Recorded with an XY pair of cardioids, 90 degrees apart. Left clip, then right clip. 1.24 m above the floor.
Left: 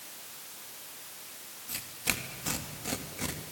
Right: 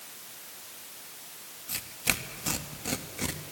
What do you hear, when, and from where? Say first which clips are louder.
1.7 s tearing paper: right 3 dB; 25° right, 1.9 m